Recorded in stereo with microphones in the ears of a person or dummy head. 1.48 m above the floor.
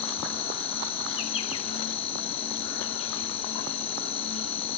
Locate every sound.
0.0 s an insect: 30° left (ahead or behind), 2 m